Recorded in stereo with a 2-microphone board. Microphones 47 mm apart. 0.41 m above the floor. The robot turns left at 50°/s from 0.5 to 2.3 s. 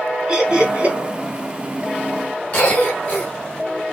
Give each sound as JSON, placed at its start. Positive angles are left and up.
{"t": 0.3, "sound": "laughter", "side_deg": -20, "distance_m": 2.0}
{"t": 2.5, "sound": "a cough", "side_deg": 40, "distance_m": 3.0}